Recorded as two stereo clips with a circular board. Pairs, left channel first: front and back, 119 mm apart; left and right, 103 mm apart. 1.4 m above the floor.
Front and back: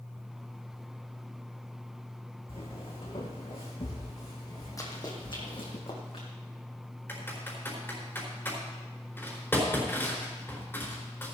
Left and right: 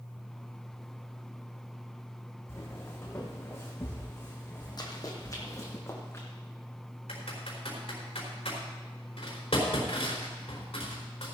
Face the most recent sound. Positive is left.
turn(degrees=70)